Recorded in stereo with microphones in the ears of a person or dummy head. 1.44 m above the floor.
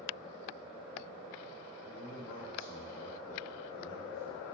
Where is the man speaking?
65° left (ahead or behind), 0.8 m.